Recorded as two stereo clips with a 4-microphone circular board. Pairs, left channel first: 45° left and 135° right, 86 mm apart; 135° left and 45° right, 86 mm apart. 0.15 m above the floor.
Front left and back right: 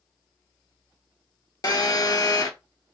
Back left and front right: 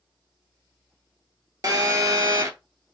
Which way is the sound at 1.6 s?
5° left.